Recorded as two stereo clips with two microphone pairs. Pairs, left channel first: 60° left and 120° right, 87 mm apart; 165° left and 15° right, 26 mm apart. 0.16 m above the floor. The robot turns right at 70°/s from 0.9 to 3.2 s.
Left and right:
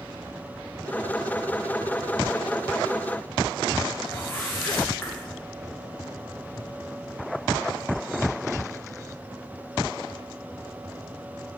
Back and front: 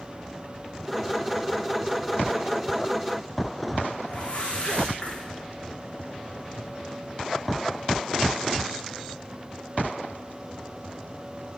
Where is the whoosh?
125° left, 6.5 m.